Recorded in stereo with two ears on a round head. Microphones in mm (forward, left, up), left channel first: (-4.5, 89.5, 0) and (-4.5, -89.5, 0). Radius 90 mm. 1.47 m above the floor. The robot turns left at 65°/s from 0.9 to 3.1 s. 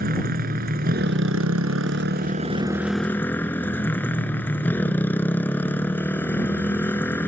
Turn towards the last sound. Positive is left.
turn(degrees=170)